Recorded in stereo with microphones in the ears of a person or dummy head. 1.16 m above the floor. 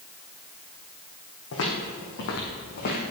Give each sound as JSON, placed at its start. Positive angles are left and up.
{"t": 1.5, "sound": "footsteps", "side_deg": 65, "distance_m": 3.0}